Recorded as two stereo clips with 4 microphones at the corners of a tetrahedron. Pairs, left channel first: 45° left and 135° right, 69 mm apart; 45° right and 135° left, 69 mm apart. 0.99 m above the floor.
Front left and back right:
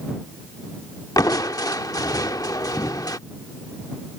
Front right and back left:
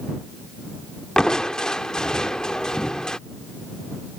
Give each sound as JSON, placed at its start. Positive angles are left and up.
{"t": 1.2, "sound": "crushing", "azimuth_deg": 35}